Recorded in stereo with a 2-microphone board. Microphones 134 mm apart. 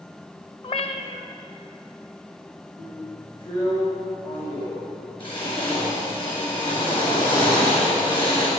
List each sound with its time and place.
0.6 s a cat meowing: 45° left (ahead or behind), 0.8 m
2.8 s a drill: 40° left (ahead or behind), 5.5 m